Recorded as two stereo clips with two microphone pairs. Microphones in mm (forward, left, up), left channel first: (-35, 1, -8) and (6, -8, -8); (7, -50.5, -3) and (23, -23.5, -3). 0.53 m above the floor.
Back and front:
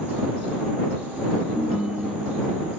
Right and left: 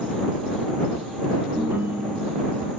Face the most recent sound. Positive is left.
turn(degrees=60)